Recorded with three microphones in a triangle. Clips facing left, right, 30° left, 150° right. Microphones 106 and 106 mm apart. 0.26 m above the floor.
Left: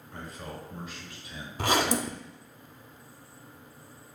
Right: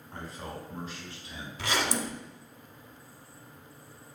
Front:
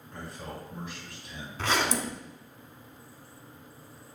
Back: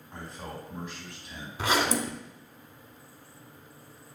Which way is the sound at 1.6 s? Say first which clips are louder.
Left 5 dB, back 2 dB; 135° left.